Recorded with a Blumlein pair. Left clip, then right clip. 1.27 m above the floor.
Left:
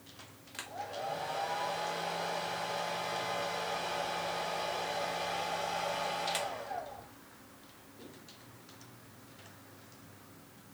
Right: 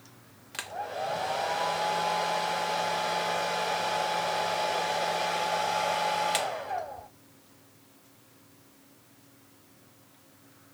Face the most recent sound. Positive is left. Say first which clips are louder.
# right 6 dB
turn(degrees=-20)